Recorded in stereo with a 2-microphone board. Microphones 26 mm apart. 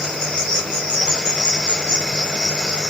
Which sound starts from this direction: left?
An insect, at 0.0 s.